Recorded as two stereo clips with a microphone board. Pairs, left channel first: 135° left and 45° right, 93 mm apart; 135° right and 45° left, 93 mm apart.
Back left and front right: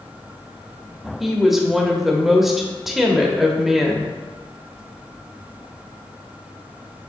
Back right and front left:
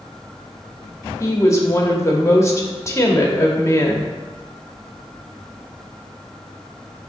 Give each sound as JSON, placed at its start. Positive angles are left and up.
{"t": 1.2, "sound": "a woman speaking", "azimuth_deg": -130, "distance_m": 1.0}